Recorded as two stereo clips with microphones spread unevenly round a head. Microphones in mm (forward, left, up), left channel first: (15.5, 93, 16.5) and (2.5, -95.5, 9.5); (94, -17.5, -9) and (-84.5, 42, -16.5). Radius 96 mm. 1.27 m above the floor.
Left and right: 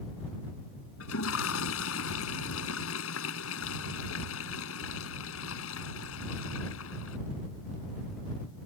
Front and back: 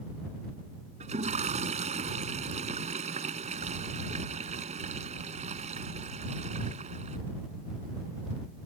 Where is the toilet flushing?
105° left.